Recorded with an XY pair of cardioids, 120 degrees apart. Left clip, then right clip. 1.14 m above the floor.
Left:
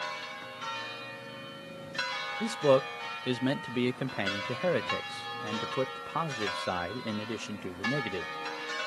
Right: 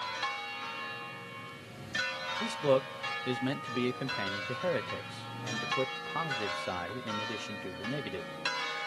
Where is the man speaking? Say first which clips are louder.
Left 4 dB; 25° left, 0.7 m.